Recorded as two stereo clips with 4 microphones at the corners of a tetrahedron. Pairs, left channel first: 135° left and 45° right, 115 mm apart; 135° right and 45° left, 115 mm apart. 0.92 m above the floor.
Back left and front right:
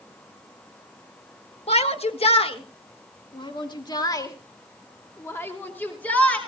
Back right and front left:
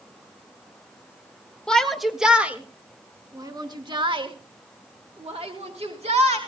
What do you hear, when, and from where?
1.7 s a shout: 140° left, 1.6 m; by 6.4 s 60° left, 3 m